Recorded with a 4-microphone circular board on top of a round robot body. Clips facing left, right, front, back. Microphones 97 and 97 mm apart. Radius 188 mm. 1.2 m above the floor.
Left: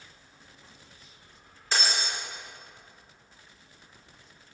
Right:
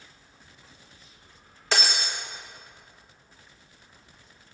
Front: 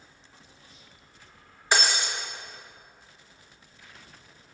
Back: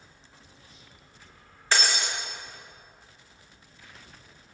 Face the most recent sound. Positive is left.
turn(degrees=-75)